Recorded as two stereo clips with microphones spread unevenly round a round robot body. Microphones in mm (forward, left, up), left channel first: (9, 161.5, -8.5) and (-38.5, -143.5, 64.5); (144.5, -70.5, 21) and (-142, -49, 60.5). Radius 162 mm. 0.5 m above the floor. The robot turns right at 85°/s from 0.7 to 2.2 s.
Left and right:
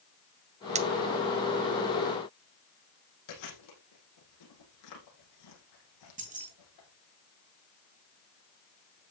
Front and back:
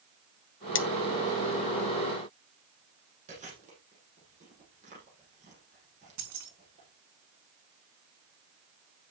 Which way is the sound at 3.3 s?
105° left.